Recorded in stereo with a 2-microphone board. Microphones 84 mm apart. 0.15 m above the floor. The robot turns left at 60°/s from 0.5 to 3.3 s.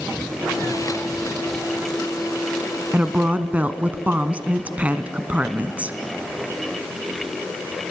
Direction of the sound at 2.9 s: 20° right (ahead or behind).